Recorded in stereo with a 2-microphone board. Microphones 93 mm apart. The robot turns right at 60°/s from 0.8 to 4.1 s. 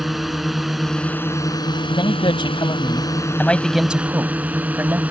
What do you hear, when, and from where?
0.0 s a drone: straight ahead; by 5.1 s 165° right
1.9 s a man speaking: 70° left; by 5.0 s 155° right